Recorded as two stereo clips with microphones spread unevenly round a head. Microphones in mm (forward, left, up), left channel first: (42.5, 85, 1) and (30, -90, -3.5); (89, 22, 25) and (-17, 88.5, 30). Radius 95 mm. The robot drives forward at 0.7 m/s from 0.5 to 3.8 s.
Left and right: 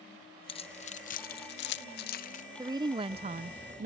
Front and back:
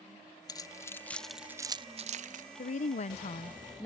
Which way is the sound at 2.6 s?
25° right.